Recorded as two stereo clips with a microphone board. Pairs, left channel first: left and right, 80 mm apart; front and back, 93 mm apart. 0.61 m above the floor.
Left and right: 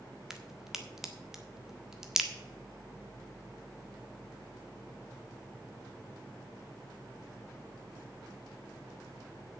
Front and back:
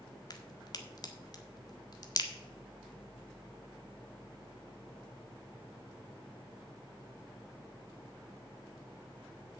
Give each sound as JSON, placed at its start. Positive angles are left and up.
{"t": 0.3, "sound": "a crack", "azimuth_deg": -5, "distance_m": 1.4}